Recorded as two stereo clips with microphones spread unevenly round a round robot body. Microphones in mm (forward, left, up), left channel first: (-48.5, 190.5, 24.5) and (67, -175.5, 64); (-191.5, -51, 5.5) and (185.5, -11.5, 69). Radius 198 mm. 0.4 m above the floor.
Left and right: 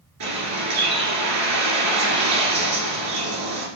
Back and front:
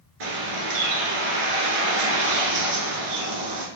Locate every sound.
0.2 s a bird: 20° right, 2 m